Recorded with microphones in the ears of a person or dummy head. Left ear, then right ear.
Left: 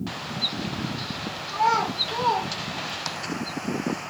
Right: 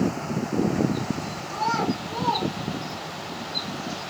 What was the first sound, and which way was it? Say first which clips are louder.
A child speaking: left 3 dB; 60° left (ahead or behind).